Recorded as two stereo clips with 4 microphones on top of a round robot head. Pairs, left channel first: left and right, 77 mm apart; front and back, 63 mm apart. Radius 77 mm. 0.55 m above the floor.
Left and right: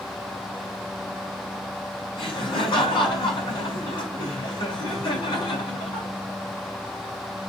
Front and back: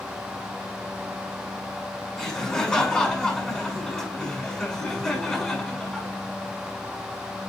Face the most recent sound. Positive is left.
turn(degrees=80)